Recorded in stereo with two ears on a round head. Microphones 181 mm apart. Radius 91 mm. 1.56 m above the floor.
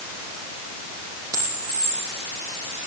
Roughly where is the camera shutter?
Centre.